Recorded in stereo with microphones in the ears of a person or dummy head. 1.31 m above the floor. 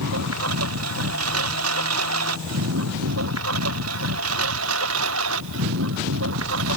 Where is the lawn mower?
80° right; by 6.8 s 70° right (ahead or behind).